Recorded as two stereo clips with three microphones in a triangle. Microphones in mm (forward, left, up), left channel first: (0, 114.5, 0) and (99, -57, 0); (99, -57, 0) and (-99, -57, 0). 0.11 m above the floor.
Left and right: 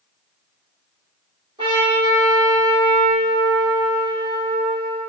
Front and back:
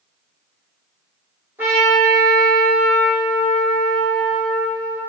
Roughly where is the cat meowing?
I don't hear a cat meowing.